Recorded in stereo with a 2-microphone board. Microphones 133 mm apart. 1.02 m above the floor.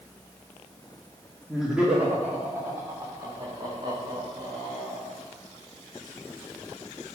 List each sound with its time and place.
1.5 s laughter: centre (ahead or behind), 2 m; by 5.1 s 40° right (ahead or behind), 4.5 m